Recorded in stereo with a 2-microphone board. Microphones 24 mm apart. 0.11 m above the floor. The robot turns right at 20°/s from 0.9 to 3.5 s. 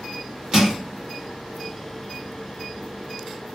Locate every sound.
0.5 s crushing: 30° right (ahead or behind), 2 m